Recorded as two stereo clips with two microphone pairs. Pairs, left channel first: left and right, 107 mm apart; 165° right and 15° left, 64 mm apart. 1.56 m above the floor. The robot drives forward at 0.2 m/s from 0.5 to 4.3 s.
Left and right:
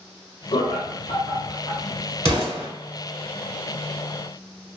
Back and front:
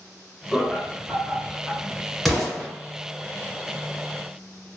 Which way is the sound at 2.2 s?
75° right.